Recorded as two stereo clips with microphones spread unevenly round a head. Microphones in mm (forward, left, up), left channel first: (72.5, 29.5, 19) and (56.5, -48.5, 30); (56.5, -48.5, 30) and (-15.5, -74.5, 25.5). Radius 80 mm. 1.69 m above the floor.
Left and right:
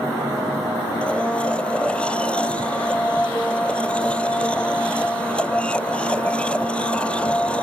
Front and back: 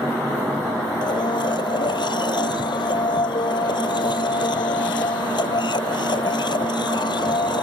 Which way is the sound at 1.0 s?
Straight ahead.